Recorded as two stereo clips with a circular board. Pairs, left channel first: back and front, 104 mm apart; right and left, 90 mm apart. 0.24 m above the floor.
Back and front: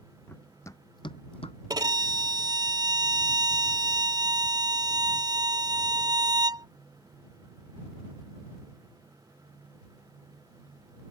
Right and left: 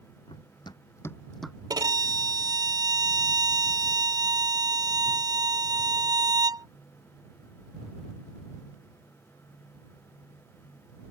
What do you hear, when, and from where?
0.3 s running footsteps: 105° right; by 1.6 s 175° left
1.7 s a violin: 50° left